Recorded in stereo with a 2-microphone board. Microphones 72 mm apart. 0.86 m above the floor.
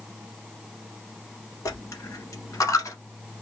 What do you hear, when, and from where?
1.6 s a dropped coin: 45° left (ahead or behind), 1.0 m